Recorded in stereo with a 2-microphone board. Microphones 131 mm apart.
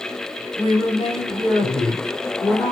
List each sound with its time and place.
0.6 s a woman speaking: 45° left (ahead or behind), 2 m